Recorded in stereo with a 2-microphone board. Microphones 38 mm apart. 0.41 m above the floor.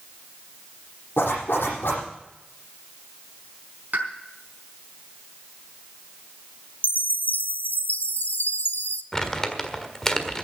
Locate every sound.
1.2 s a zipper: 85° left, 8 m
3.9 s a pop: 50° right (ahead or behind), 4.5 m
6.8 s a chime: 60° left (ahead or behind), 0.7 m
9.1 s crumpling: 15° left (ahead or behind), 1.5 m